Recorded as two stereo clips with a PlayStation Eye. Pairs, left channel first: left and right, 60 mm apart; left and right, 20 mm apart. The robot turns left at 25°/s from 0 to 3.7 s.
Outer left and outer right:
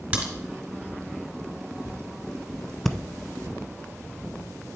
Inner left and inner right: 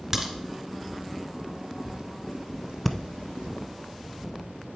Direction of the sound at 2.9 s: 5° left (ahead or behind).